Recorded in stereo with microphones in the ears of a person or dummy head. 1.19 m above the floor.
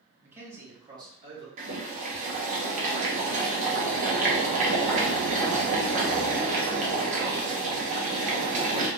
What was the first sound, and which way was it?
A man speaking, 10° right (ahead or behind).